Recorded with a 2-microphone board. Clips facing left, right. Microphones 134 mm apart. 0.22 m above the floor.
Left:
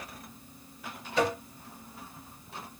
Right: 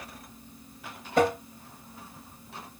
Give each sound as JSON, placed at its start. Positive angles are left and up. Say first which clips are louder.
{"t": 1.2, "sound": "tapping", "louder": "right 4 dB", "side_deg": -50, "distance_m": 1.5}